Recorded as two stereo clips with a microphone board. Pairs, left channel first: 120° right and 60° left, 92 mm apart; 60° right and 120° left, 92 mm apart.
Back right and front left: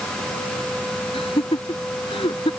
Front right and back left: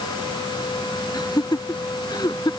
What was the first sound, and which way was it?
Laughter, 105° right.